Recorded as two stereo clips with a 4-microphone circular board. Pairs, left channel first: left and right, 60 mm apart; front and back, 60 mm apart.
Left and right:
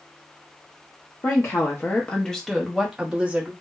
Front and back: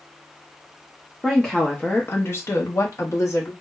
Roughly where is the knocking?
No knocking in this recording.